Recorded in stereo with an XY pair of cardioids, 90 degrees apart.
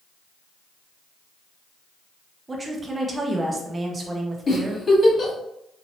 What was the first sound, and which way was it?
A woman speaking, 30° right.